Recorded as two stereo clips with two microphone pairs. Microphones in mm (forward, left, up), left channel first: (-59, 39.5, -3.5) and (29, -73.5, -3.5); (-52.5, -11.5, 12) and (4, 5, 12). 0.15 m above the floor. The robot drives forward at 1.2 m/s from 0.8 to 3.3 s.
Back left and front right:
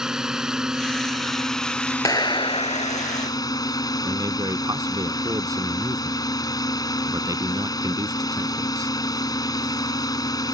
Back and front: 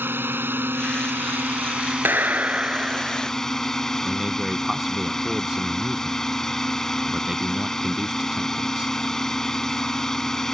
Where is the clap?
65° left; by 3.3 s 115° left.